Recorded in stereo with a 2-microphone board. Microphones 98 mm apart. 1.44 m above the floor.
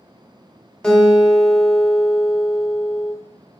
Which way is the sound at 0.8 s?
5° left (ahead or behind).